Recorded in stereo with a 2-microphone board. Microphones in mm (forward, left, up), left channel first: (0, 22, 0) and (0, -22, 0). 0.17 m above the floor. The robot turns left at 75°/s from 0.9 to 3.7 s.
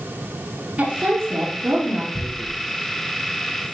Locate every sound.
0.8 s a woman speaking: 30° right, 3 m; by 2.0 s 115° right, 3 m
2.1 s tearing paper: 20° left (ahead or behind), 1.8 m; by 2.6 s centre (ahead or behind), 1.8 m